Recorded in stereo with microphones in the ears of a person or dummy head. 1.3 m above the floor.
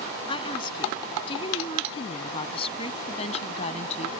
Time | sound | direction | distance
0.3 | a woman speaking | 30° left (ahead or behind) | ?